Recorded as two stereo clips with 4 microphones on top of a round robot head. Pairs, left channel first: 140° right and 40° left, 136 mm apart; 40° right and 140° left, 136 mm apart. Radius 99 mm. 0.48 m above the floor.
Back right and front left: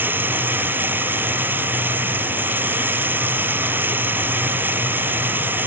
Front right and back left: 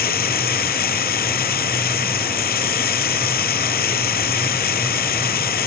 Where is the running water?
40° right.